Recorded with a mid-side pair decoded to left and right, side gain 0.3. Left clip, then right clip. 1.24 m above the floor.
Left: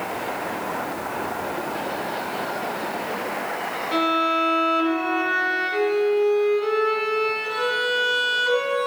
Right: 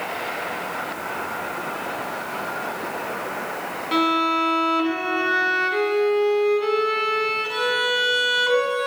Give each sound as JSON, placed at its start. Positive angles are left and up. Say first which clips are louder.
{"t": 3.9, "sound": "a violin", "louder": "right 1 dB", "azimuth_deg": -60, "distance_m": 1.6}